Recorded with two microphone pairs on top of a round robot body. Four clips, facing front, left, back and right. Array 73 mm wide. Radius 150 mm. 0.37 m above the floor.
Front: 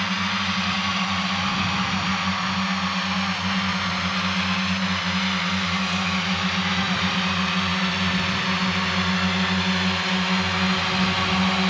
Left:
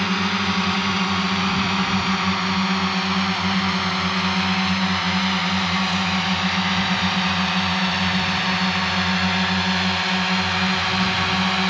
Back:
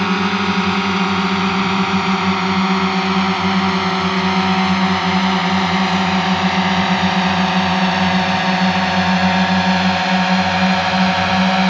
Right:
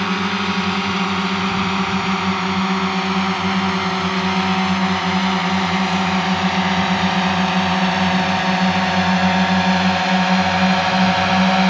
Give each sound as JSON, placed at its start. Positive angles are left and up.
{"t": 0.0, "sound": "a drone", "azimuth_deg": -165}